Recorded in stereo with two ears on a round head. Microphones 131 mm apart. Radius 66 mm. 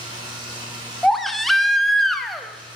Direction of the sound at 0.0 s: 35° right (ahead or behind).